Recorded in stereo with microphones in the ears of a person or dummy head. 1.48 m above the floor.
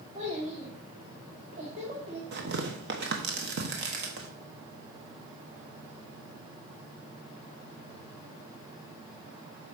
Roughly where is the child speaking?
Right.